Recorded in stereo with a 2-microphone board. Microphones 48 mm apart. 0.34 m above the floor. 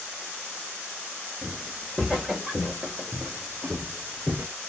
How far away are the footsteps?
About 2.5 m.